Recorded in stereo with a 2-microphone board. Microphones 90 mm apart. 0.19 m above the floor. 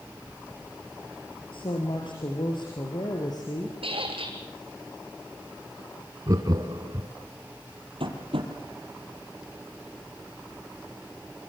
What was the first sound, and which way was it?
A woman speaking, 65° left (ahead or behind).